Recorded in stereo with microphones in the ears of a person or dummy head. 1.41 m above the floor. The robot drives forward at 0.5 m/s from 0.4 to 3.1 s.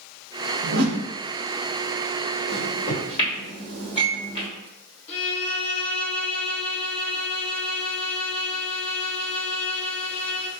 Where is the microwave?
35° left (ahead or behind), 1.3 m; by 4.5 s 30° left (ahead or behind), 1.6 m.